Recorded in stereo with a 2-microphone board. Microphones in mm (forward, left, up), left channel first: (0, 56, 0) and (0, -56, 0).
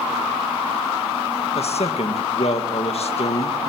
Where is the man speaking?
65° left (ahead or behind), 1.9 m.